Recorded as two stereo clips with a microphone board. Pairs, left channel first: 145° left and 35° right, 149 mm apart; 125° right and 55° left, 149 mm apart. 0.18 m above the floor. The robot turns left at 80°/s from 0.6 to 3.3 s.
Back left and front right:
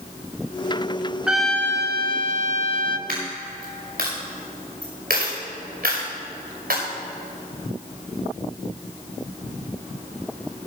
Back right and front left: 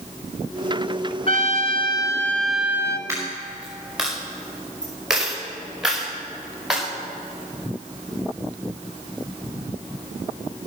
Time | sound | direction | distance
1.3 | a trumpet | 115° right | 0.6 m
3.1 | a dropped coin | 15° right | 4.5 m